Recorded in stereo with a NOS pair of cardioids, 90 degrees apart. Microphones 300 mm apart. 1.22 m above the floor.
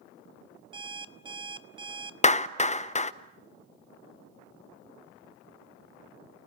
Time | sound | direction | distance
0.7 | an alarm clock | 15° right | 1.1 m
2.2 | a clap | 25° left | 0.7 m